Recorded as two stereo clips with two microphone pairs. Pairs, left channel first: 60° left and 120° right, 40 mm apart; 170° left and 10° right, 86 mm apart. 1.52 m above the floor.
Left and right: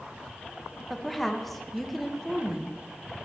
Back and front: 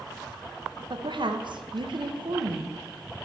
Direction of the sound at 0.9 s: 30° right.